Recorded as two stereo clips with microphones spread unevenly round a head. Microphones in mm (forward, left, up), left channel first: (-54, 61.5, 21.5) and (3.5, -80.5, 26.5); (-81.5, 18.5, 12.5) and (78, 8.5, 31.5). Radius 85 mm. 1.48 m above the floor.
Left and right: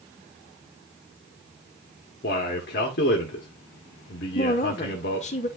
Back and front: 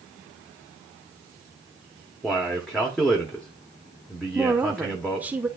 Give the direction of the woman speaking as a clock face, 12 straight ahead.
10 o'clock.